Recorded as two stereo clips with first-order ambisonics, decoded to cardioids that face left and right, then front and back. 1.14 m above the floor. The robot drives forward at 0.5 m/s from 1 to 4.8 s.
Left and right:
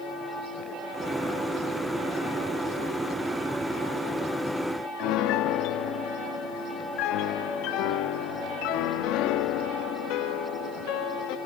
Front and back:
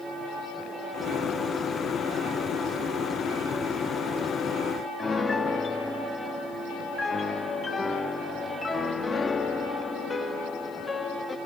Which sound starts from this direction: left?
A piano, at 5.0 s.